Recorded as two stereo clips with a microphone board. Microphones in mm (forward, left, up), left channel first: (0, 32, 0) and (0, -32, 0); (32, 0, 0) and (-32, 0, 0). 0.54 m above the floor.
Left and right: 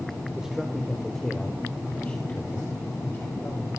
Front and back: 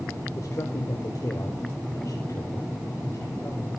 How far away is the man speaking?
About 2.0 m.